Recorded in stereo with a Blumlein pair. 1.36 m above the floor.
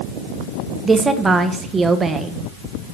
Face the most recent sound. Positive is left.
turn(degrees=-15)